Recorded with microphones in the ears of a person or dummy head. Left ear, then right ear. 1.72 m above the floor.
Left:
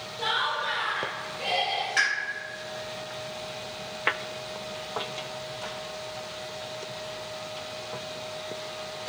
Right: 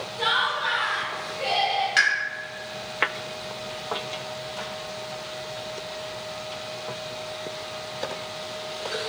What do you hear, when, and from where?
0.2 s laughter: 55° right (ahead or behind), 1.1 m; by 1.9 s 5° right (ahead or behind), 0.6 m
2.0 s a pop: 25° right (ahead or behind), 1.1 m